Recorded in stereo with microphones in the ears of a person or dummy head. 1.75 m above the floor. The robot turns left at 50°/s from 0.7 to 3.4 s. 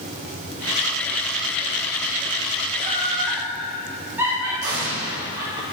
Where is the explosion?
50° right (ahead or behind), 3 m.